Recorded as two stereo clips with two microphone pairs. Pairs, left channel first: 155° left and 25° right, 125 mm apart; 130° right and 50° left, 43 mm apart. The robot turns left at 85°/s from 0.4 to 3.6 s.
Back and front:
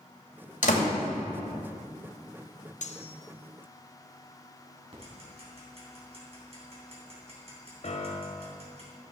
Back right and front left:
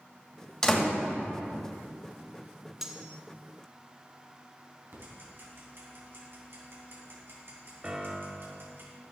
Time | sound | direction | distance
0.6 | a door slam | 160° left | 2.5 m
2.8 | cutlery clinking | 135° left | 0.6 m
4.9 | ticking | 15° left | 3 m
7.8 | a piano | 125° left | 0.8 m